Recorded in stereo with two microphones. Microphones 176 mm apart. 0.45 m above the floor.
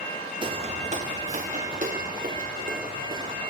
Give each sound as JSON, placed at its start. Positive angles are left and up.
{"t": 0.4, "sound": "footsteps", "side_deg": -25, "distance_m": 0.9}